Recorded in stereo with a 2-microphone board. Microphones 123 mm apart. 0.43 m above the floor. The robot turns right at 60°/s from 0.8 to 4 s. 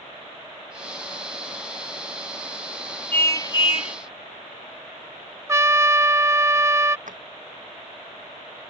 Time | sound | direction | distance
3.1 | a car horn | 15° left | ?
5.5 | a trumpet | 20° right (ahead or behind) | ?
7.1 | a drawer | 80° right | ?